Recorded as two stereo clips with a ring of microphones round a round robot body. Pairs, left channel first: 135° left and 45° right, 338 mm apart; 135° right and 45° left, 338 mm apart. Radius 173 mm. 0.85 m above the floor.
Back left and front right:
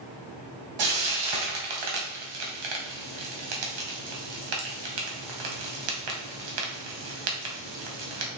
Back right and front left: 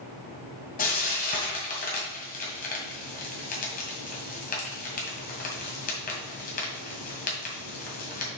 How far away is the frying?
About 2 m.